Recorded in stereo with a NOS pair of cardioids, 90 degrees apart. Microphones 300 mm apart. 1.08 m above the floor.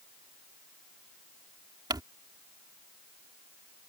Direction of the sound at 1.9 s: 15° right.